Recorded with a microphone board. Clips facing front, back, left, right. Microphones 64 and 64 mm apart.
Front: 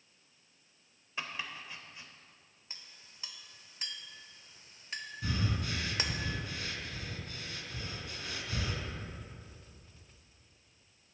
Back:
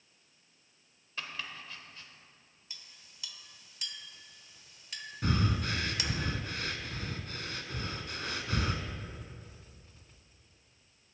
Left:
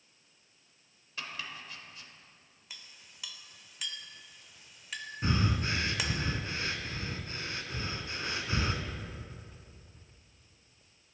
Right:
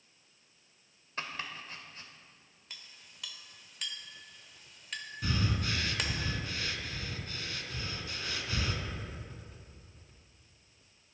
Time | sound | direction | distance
1.2 | chopping | 65° right | 0.9 m
2.7 | a clink | 5° left | 0.7 m
5.2 | breathing | 150° left | 0.8 m